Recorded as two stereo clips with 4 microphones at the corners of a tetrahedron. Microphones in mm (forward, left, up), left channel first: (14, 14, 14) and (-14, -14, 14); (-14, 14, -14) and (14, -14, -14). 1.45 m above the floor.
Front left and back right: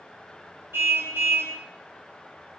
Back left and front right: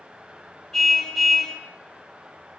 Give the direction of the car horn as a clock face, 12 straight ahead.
5 o'clock.